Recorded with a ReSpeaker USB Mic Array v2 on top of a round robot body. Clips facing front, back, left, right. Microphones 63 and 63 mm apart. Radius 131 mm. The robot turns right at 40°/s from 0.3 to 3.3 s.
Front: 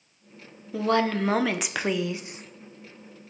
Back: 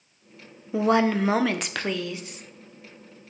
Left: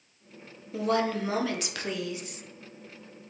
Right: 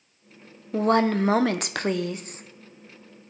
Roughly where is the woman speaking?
Behind right.